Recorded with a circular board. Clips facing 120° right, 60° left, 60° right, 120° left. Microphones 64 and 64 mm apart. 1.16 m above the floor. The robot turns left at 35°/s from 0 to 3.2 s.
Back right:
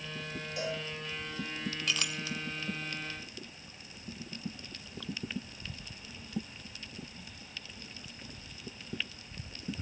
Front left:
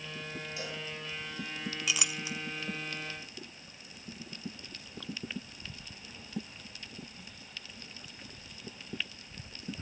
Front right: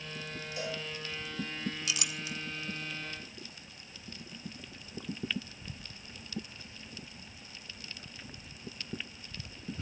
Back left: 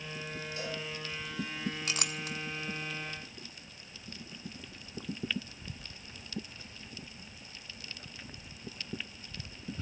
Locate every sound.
0.6 s a cowbell: 130° right, 7.5 m; by 0.8 s 140° right, 7.5 m
1.9 s a clink: 140° left, 0.7 m; by 2.4 s 125° left, 0.7 m